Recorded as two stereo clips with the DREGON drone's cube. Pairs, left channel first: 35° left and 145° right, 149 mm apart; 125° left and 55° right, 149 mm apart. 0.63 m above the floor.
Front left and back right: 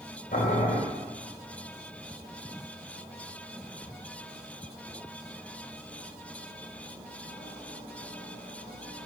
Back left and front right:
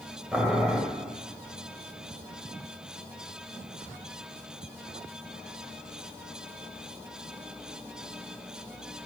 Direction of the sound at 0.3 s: 25° left.